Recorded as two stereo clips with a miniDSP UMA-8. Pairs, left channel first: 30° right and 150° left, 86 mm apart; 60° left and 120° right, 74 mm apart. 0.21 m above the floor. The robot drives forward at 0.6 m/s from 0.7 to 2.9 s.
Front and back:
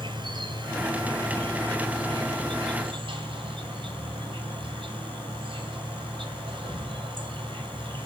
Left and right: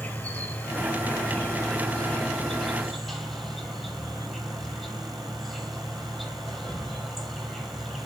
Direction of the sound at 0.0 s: 130° left.